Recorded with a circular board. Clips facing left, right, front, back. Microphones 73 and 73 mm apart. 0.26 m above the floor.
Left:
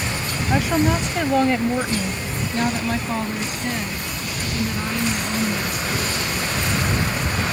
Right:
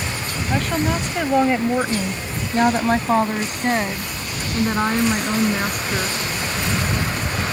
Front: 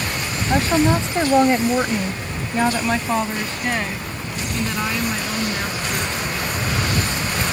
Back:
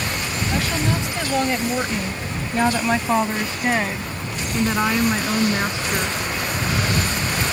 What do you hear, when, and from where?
0.5 s a woman speaking: 15° left; by 6.2 s 120° right